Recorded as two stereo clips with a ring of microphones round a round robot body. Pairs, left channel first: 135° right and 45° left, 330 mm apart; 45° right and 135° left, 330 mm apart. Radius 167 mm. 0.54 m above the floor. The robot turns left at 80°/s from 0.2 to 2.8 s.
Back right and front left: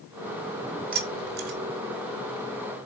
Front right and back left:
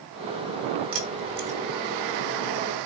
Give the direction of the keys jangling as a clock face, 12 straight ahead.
8 o'clock.